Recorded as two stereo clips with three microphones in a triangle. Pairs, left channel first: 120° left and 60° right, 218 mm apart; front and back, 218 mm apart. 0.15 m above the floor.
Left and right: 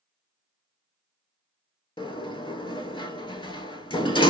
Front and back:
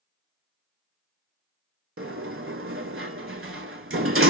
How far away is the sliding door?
About 0.5 m.